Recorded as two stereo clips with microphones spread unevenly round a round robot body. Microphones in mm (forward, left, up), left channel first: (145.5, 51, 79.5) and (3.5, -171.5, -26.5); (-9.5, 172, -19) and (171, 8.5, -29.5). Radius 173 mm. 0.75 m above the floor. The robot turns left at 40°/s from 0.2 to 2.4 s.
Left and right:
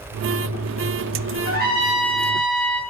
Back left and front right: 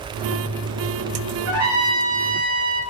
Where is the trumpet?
50° right, 1.2 m; by 2.8 s 90° right, 1.2 m.